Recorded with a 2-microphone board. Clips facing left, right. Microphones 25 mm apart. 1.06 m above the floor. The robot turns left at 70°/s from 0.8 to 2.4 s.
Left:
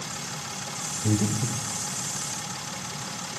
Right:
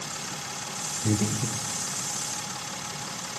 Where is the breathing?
25° right (ahead or behind), 0.7 m; by 1.6 s 15° right (ahead or behind), 0.7 m.